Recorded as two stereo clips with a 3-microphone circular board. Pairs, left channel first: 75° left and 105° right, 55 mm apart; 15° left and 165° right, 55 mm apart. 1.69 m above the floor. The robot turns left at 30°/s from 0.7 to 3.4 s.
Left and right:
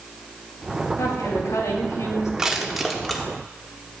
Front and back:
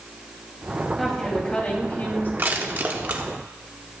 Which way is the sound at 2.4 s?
175° right.